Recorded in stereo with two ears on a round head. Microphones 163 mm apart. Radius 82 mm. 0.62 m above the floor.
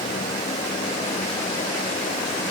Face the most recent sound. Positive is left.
No sound to turn to.